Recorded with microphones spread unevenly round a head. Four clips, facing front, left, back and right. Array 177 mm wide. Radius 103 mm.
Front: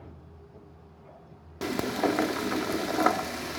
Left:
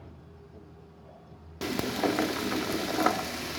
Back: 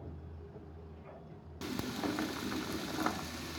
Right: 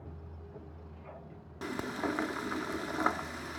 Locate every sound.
1.6 s frying: 90° left